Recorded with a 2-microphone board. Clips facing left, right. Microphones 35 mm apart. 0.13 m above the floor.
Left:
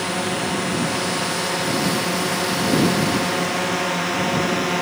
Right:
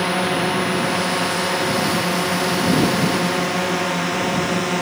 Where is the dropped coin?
No dropped coin in this recording.